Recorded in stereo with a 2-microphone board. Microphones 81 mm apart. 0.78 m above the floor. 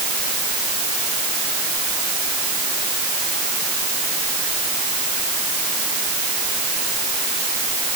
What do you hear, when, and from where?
Only background noise.